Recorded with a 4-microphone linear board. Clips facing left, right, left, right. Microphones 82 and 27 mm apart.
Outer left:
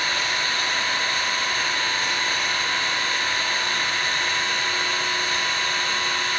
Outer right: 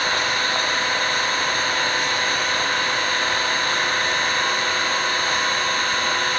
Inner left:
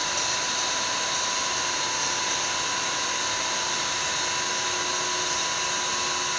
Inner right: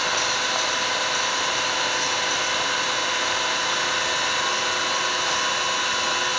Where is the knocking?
I don't hear knocking.